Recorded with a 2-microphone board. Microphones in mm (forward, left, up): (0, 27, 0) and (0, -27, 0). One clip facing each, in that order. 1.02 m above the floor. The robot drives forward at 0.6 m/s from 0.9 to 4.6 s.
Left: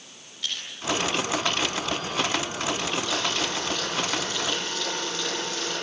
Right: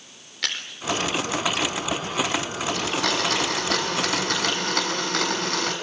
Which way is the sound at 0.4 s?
80° right.